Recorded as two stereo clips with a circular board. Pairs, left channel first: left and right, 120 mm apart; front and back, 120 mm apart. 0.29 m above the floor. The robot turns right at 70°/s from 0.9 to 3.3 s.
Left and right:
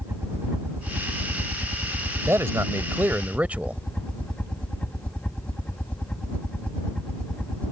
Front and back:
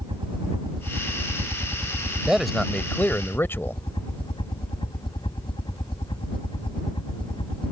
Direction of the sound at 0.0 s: 155° right.